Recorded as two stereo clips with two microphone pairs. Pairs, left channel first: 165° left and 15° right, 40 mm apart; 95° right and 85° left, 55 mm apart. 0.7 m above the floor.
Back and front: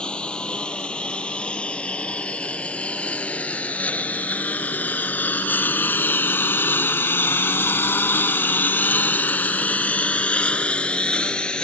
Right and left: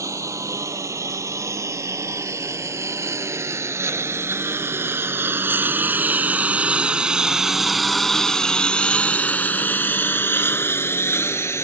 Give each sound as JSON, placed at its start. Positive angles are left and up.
{"t": 0.0, "sound": "a lawn mower", "azimuth_deg": 100}